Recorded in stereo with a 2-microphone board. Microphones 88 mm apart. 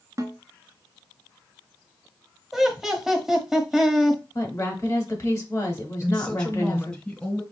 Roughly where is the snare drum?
Right.